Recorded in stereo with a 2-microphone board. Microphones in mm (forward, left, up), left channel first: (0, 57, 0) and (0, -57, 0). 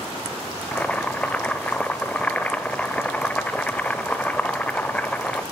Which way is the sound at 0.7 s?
10° left (ahead or behind).